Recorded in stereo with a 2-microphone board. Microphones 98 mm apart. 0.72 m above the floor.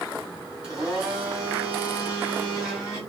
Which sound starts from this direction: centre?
A blender, at 0.6 s.